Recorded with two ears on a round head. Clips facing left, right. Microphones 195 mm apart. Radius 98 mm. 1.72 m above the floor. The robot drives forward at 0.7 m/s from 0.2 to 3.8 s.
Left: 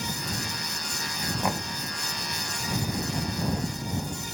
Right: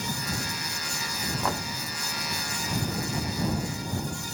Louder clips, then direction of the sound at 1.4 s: Left 1 dB; 15° left (ahead or behind).